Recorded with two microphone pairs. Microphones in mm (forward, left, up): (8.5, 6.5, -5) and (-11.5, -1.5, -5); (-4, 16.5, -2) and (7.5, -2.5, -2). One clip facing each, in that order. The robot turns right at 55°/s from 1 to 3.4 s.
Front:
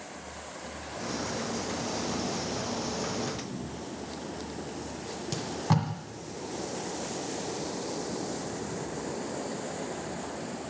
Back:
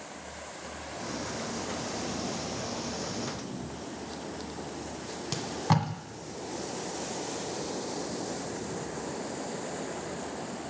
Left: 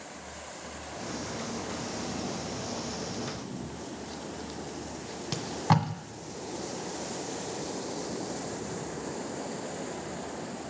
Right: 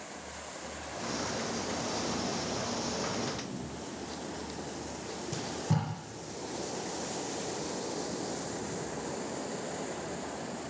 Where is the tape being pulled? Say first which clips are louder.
Back 1 dB, left 7 dB; 135° left, 1.5 m.